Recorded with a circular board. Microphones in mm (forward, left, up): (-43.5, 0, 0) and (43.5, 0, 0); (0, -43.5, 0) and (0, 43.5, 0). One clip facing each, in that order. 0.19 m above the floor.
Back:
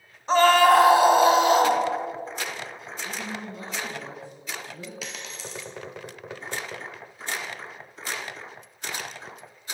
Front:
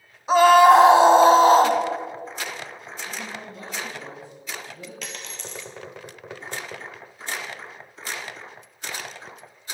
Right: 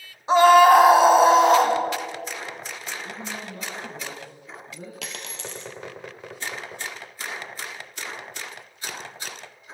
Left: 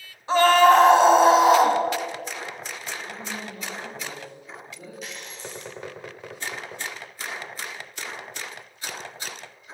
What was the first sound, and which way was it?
A scream, 60° right.